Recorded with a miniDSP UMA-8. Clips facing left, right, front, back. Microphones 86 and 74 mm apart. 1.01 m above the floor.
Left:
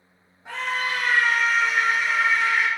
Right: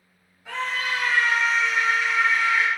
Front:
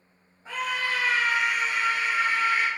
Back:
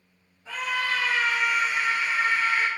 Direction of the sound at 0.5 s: 45° left.